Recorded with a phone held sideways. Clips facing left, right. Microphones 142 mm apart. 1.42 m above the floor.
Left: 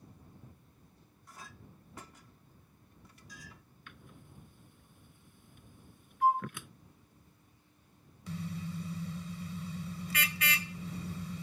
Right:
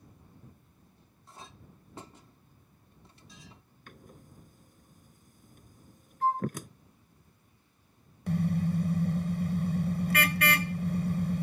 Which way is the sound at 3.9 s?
40° right (ahead or behind).